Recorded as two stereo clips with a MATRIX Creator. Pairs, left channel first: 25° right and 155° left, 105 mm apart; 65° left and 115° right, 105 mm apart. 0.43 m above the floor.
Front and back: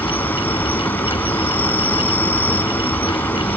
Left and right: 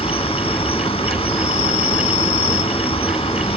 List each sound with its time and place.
0.0 s an insect: 50° left